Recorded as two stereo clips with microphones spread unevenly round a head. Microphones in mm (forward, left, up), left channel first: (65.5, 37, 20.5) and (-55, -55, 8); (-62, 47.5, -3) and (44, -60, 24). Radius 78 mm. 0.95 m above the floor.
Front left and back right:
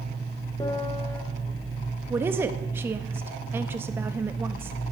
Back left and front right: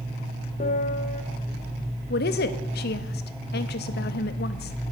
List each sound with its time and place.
0.6 s a piano: 105° left, 0.6 m
2.1 s a woman speaking: 140° left, 0.8 m